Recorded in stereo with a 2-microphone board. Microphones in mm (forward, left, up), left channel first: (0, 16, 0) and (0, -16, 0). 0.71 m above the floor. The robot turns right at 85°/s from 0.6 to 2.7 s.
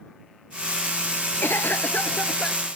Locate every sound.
1.4 s a cough: 85° left; by 2.7 s 170° right